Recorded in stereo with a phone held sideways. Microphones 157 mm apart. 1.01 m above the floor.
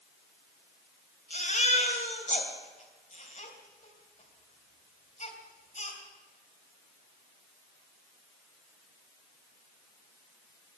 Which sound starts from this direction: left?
A baby crying, at 1.3 s.